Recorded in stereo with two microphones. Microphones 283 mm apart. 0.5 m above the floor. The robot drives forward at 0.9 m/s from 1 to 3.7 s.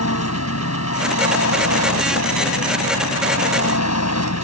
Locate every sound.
0.0 s an engine running: 65° left (ahead or behind); by 4.5 s 70° left (ahead or behind)